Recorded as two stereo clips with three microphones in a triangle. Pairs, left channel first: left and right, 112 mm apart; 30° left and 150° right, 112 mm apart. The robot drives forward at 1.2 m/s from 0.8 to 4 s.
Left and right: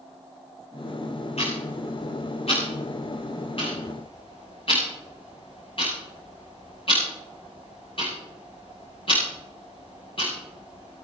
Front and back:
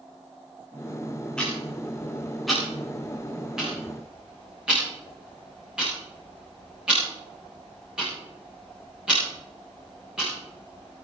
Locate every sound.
1.4 s ticking: 110° left, 9 m; by 11.0 s 130° left, 10.5 m